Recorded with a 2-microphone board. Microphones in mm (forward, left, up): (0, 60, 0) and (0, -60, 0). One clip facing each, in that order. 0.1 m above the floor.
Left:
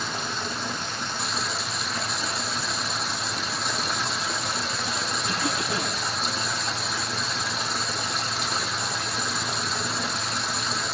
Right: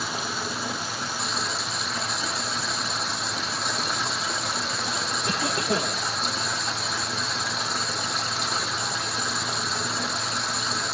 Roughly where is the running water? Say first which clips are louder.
Even; centre.